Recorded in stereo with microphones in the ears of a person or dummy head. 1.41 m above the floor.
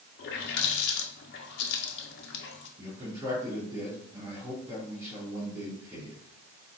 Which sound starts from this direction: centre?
A man speaking, at 2.8 s.